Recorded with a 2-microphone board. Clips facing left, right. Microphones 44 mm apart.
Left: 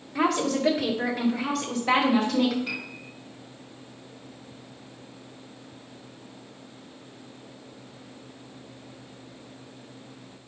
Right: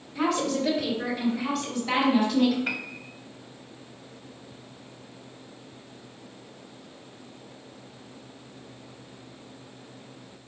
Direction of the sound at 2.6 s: 45° right (ahead or behind).